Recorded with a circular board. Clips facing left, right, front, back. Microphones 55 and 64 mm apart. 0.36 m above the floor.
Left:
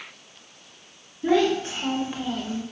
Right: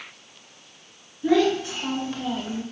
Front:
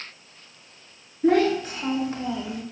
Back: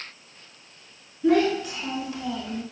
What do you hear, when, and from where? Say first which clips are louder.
1.2 s a child speaking: right 1 dB, front 1 dB; 40° left, 1.7 m; by 2.6 s 85° right, 0.6 m